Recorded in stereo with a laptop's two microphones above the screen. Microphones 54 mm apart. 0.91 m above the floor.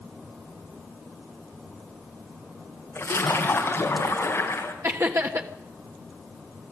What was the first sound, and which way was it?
A splash, 50° left (ahead or behind).